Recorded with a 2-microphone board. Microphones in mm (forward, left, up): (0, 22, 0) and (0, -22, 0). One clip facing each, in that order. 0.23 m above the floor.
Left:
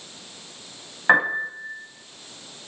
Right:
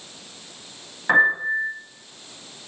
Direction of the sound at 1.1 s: 25° left (ahead or behind).